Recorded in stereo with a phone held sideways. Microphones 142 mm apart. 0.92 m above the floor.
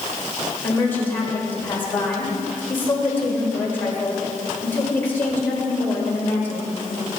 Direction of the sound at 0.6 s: 15° left (ahead or behind).